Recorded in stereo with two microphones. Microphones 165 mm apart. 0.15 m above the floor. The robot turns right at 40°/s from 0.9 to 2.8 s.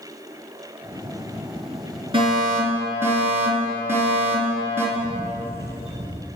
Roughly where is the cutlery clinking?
I don't hear cutlery clinking.